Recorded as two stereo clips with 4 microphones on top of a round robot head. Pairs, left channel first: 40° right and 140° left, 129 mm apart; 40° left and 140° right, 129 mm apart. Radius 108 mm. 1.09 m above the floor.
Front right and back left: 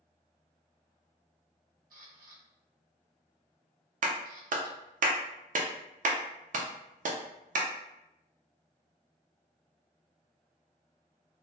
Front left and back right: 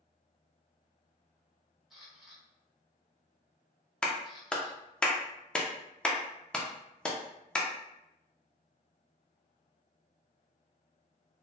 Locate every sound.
1.9 s a camera shutter: 135° left, 0.9 m
4.0 s a clap: 125° left, 0.5 m